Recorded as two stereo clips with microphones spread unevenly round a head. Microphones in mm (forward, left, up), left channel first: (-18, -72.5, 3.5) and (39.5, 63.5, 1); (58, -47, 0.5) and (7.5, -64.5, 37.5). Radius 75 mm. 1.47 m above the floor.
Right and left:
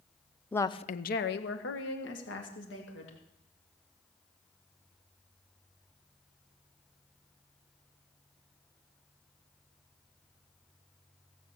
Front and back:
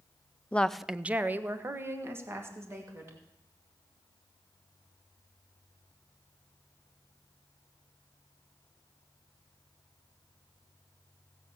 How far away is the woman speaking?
About 0.7 m.